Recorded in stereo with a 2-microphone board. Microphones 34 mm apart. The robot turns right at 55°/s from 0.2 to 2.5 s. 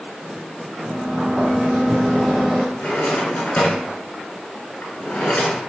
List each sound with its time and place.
0.8 s a sliding door: 80° right, 1.6 m; by 2.7 s 10° left, 1.6 m
2.8 s a drawer: 40° left (ahead or behind), 1.1 m